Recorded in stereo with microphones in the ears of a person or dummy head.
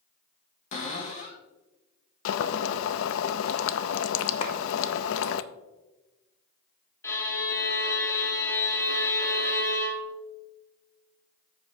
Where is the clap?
35° left (ahead or behind), 0.8 m.